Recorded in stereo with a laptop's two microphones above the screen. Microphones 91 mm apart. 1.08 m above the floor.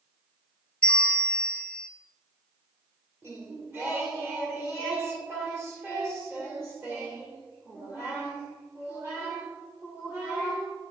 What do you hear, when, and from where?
0.8 s a bell: 15° left (ahead or behind), 0.9 m
3.2 s singing: 25° right (ahead or behind), 1.6 m